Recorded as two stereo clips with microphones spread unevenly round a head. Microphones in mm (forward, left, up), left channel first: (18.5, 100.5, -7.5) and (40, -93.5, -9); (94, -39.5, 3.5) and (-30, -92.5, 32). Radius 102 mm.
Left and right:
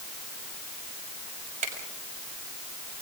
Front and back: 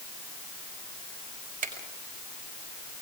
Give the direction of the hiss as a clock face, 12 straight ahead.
I don't hear a hiss.